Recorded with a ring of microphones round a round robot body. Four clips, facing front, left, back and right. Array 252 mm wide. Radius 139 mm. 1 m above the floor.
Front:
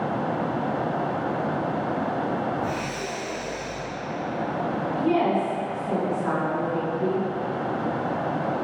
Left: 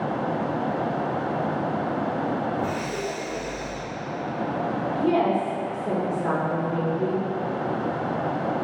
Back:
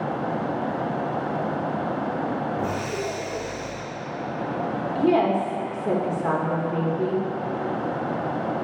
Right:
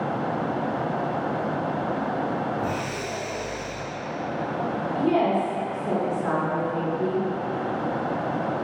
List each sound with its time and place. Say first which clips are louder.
2.6 s breathing: left 1 dB, back 1 dB; 165° left, 3.5 m
5.0 s a woman speaking: even, back 2 dB; 175° left, 3 m